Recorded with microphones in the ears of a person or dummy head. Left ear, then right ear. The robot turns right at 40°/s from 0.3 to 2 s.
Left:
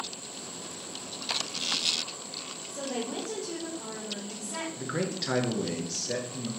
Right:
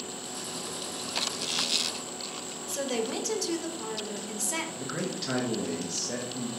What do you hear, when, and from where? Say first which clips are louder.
2.7 s a woman speaking: right 4 dB; 70° right (ahead or behind), 0.7 m
4.8 s a man speaking: left 1 dB; 20° left (ahead or behind), 0.7 m